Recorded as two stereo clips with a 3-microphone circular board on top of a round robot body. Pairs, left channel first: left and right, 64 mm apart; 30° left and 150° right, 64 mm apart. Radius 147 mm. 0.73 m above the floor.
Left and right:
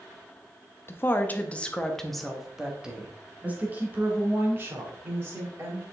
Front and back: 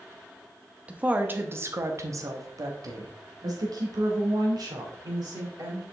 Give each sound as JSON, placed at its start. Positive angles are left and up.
{"t": 0.9, "sound": "a woman speaking", "azimuth_deg": 140, "distance_m": 1.1}